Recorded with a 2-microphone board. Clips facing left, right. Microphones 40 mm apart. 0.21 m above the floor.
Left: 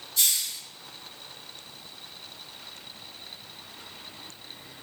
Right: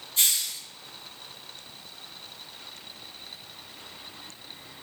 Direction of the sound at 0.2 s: 35° right (ahead or behind).